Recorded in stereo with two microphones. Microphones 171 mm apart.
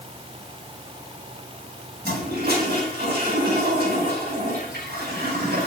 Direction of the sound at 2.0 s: 65° right (ahead or behind).